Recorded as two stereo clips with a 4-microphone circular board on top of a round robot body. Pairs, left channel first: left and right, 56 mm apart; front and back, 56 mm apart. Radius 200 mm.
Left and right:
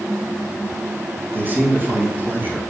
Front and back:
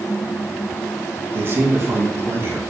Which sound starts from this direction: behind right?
A man speaking, at 1.3 s.